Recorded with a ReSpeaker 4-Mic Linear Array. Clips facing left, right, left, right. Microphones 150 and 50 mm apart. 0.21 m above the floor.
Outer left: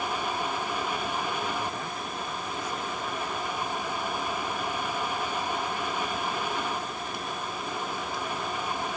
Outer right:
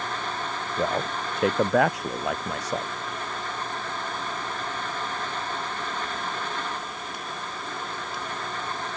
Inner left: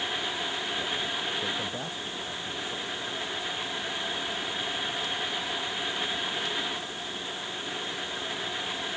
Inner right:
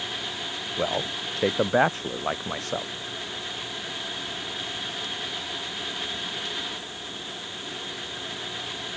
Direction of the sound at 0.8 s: 75° right (ahead or behind).